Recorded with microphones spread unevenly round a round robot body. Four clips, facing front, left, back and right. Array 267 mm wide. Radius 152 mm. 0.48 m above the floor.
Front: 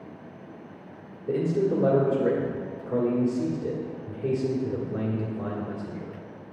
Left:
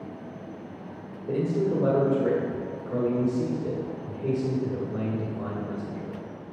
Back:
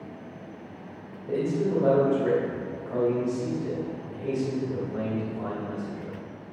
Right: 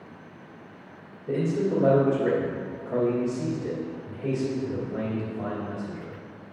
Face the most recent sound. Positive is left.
turn(degrees=20)